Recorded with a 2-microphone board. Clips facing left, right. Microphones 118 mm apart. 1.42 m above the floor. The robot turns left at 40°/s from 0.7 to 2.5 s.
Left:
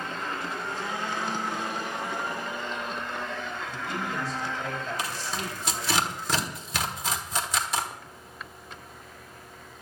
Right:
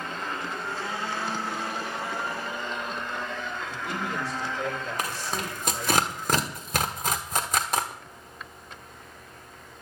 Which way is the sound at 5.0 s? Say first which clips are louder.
Right 2 dB; 50° right (ahead or behind).